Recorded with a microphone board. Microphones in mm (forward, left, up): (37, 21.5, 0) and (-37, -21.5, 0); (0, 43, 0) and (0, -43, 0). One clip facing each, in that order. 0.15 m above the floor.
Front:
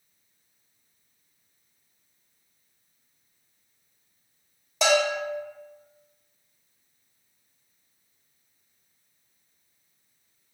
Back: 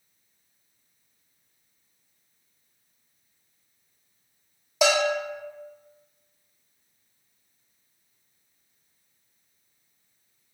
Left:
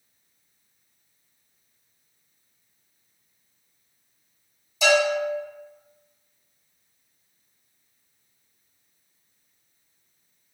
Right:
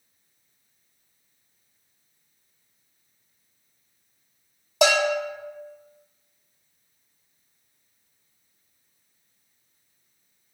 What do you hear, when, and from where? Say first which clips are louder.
4.8 s a bell: even, left 1 dB; 65° right, 1.4 m